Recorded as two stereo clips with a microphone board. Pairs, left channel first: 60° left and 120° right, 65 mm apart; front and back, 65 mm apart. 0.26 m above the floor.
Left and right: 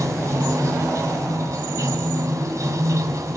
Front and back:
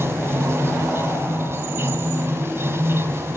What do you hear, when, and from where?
0.0 s running water: 140° right, 2 m